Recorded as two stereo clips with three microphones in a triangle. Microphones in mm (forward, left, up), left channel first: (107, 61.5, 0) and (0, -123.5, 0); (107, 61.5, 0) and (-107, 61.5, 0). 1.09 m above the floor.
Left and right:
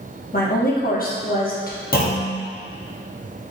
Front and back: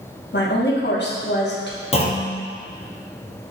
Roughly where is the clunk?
Ahead left.